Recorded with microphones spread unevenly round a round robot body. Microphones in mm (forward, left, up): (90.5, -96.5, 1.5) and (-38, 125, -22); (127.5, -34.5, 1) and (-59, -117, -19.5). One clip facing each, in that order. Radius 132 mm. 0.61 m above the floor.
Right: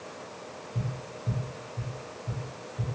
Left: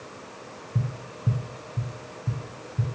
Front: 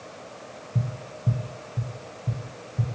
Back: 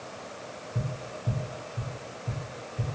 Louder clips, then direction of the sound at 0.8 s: Left 4 dB, front 3 dB; 65° left.